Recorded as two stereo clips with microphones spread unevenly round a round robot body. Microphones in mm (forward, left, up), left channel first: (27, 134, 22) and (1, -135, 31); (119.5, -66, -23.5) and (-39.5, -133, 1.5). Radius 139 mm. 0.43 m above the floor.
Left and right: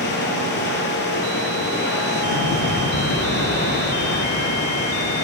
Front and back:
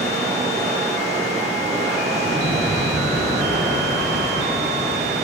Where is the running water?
135° left, 4 m.